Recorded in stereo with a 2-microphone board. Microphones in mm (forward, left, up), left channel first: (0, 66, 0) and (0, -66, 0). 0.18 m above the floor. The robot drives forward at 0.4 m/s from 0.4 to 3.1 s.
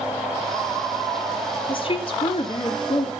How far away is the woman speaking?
About 1.3 m.